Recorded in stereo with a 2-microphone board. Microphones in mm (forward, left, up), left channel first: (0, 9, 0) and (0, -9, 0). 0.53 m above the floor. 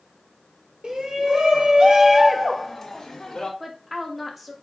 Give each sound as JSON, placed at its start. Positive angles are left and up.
{"t": 0.8, "sound": "a shout", "side_deg": -60, "distance_m": 1.2}
{"t": 3.6, "sound": "a woman speaking", "side_deg": -5, "distance_m": 0.7}